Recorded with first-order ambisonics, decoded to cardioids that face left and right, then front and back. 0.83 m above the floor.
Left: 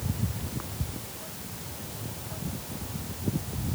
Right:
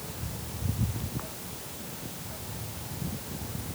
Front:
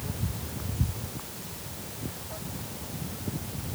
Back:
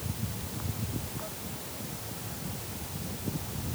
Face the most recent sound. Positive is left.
No sound to turn to.